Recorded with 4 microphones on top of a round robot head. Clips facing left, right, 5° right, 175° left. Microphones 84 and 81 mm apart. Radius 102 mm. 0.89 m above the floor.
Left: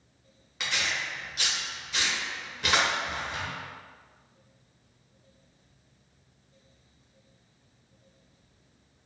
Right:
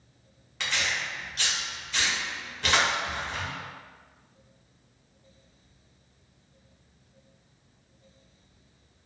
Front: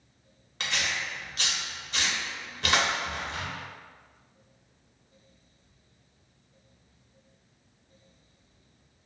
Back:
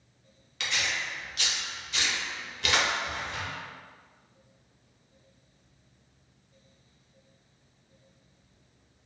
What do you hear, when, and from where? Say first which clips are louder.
0.6 s tearing paper: right 1 dB, even; 10° left, 0.9 m